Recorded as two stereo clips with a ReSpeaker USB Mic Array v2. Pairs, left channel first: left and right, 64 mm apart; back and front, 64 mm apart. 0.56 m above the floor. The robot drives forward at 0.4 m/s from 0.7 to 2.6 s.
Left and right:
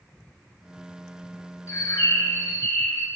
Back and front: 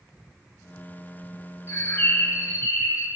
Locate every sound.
1.7 s a bird: 135° left, 3 m; by 3.1 s 140° left, 3 m